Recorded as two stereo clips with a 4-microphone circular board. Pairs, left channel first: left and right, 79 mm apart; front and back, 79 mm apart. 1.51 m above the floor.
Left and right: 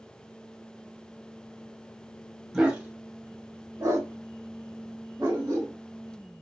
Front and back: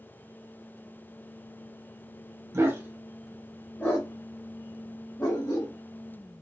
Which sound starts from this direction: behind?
A dog barking, at 2.5 s.